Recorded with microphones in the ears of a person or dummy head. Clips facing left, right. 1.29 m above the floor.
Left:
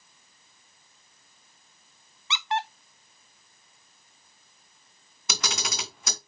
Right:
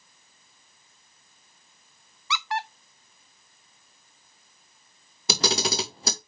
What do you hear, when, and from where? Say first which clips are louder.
2.3 s a squeak: left 1 dB; 20° left (ahead or behind), 0.6 m
5.3 s a camera shutter: right 8 dB; 30° right (ahead or behind), 1.0 m